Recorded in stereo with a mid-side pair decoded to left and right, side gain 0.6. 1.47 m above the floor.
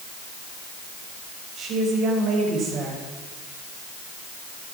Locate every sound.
1.6 s a woman speaking: 55° right, 7 m